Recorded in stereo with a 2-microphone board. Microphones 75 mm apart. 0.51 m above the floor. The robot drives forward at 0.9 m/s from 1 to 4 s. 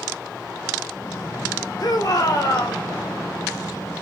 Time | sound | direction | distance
1.8 | a shout | 60° left (ahead or behind) | 2 m